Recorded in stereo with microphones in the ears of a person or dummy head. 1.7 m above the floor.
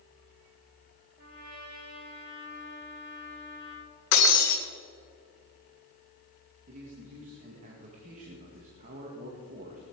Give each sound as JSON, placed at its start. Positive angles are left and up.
{"t": 1.2, "sound": "a trumpet", "side_deg": -45, "distance_m": 4.5}
{"t": 4.1, "sound": "breaking glass", "side_deg": 60, "distance_m": 3.0}
{"t": 6.7, "sound": "a man speaking", "side_deg": -40, "distance_m": 2.0}